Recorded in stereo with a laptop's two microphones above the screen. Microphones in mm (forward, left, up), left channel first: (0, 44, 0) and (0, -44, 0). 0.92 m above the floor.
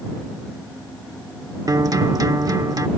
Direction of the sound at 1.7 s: 45° right (ahead or behind).